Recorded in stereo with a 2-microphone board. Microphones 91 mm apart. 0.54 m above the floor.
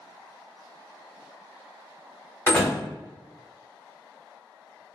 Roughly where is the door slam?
Left.